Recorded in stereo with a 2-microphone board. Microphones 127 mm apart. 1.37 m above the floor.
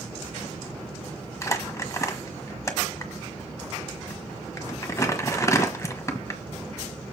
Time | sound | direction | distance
1.4 | crumpling | 25° left (ahead or behind) | 1.4 m